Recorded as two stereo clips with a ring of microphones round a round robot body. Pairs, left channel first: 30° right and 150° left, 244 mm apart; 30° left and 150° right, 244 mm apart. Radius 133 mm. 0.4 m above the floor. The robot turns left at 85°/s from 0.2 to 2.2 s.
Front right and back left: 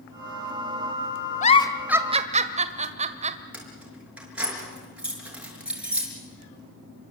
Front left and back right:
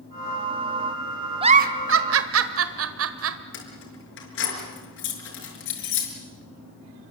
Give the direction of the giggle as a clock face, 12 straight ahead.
3 o'clock.